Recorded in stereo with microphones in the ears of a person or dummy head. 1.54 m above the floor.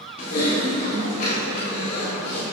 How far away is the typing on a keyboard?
About 2 m.